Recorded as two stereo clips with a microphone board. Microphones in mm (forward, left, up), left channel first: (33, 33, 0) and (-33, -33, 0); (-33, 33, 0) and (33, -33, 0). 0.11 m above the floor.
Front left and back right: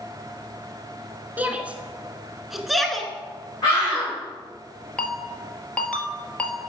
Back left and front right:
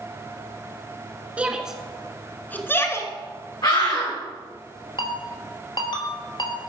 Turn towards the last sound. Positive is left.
turn(degrees=120)